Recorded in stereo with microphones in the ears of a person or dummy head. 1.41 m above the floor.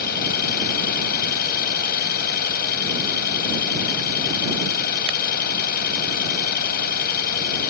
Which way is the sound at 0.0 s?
55° left (ahead or behind).